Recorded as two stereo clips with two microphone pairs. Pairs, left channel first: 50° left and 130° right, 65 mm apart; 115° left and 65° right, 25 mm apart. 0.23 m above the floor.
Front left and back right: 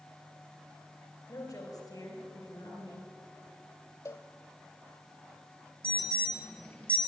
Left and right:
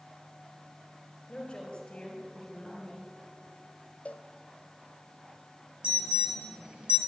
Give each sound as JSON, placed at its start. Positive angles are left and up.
{"t": 1.3, "sound": "a woman speaking", "azimuth_deg": 50, "distance_m": 5.0}
{"t": 4.0, "sound": "a cowbell", "azimuth_deg": 85, "distance_m": 1.4}
{"t": 5.8, "sound": "an alarm", "azimuth_deg": -20, "distance_m": 3.0}